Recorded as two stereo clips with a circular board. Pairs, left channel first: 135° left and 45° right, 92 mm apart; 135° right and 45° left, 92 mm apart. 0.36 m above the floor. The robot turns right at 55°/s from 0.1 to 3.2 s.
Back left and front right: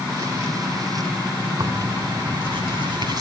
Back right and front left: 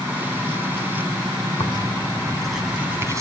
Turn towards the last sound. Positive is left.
turn(degrees=-5)